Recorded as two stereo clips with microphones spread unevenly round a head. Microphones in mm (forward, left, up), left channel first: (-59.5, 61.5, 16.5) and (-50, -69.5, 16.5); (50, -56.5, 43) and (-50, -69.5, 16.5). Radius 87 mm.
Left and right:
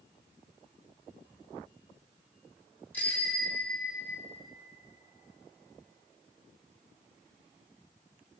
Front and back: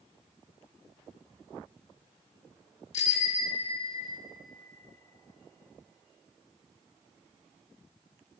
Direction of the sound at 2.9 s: 15° left.